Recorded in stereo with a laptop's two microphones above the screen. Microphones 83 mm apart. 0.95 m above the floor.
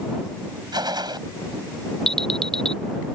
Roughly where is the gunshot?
Right.